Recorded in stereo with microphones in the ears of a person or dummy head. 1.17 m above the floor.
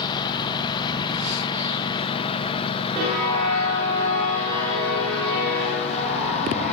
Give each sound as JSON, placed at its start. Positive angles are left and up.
{"t": 0.0, "sound": "a lawn mower", "side_deg": 25}